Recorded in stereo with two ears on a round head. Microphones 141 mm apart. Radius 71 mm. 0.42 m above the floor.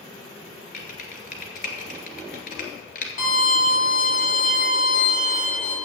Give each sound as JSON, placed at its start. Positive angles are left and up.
{"t": 0.7, "sound": "typing on a keyboard", "side_deg": 55, "distance_m": 1.7}
{"t": 3.2, "sound": "a violin", "side_deg": 55, "distance_m": 2.5}